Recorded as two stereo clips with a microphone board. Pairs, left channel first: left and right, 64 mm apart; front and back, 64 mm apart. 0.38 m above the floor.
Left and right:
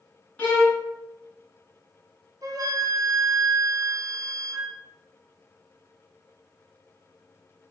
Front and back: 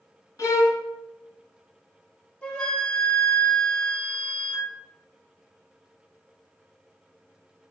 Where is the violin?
20° left, 1.2 m.